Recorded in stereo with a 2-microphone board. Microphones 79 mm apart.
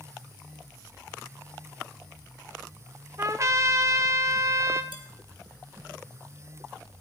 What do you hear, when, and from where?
3.2 s a trumpet: 35° right (ahead or behind), 0.8 m
4.9 s dishes clattering: 70° left (ahead or behind), 1.9 m